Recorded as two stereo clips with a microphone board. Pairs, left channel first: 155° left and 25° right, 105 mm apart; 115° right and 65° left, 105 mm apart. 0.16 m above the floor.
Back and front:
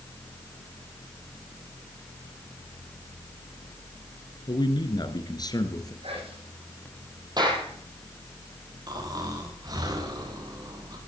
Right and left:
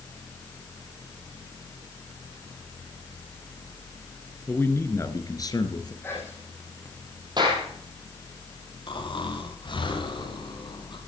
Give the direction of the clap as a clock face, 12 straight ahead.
11 o'clock.